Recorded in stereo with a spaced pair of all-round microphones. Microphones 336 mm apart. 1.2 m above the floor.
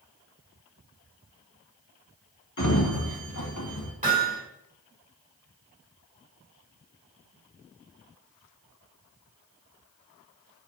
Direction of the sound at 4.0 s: 20° right (ahead or behind).